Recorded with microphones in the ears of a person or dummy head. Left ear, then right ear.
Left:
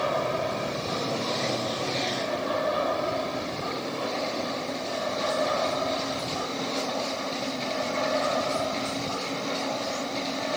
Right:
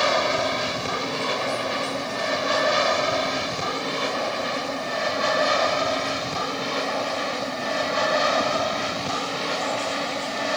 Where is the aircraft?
65° right (ahead or behind); by 10.6 s 70° right (ahead or behind).